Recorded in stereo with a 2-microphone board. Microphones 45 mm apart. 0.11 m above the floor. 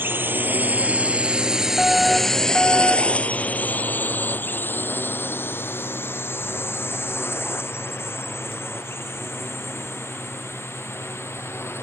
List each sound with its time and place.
0.0 s a drone: 55° right (ahead or behind); by 11.8 s 70° left (ahead or behind)
1.8 s a fire alarm: centre (ahead or behind)